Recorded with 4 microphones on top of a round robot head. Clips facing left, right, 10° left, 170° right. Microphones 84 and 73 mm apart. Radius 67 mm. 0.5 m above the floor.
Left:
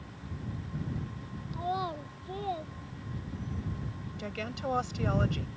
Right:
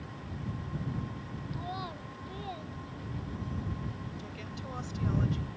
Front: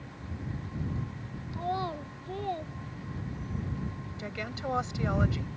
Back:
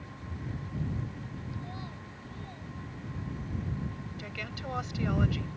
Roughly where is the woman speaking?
Left.